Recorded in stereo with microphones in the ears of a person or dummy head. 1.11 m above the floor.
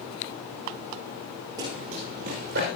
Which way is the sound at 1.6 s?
25° right (ahead or behind).